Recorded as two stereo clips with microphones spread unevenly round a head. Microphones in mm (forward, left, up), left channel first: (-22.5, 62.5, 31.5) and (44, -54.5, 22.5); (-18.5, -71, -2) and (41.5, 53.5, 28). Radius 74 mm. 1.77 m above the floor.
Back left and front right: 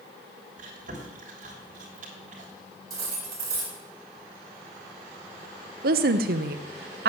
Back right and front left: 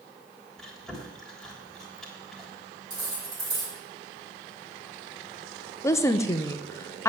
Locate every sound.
0.6 s chewing: 25° right, 3.5 m
2.9 s cutlery clinking: 5° left, 4.5 m
5.8 s a woman speaking: 45° right, 1.0 m